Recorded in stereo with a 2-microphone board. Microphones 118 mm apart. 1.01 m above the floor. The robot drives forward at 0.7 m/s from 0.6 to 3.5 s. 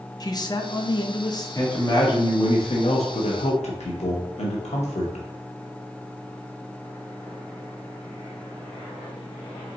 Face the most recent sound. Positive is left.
turn(degrees=80)